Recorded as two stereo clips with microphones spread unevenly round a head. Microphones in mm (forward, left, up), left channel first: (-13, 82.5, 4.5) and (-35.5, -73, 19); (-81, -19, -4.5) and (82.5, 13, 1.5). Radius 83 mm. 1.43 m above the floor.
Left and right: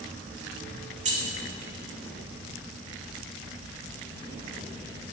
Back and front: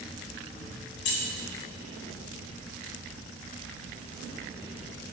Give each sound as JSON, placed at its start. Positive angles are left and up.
{"t": 1.1, "sound": "keys jangling", "azimuth_deg": -145, "distance_m": 2.5}